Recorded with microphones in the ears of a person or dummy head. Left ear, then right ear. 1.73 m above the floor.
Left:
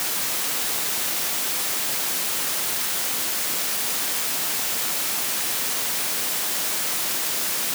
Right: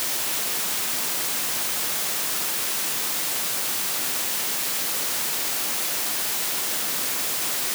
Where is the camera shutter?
I don't hear a camera shutter.